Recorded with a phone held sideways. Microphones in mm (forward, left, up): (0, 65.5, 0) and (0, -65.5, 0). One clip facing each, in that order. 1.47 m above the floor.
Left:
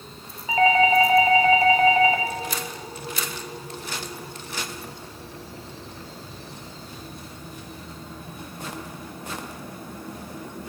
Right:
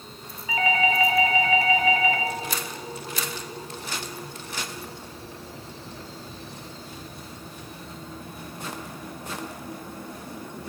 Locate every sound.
0.5 s a doorbell: 30° left (ahead or behind), 1.2 m